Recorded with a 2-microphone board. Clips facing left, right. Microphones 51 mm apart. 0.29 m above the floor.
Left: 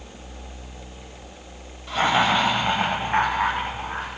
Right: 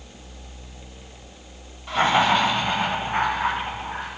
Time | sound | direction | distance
1.9 | laughter | 10° right (ahead or behind) | 1.2 m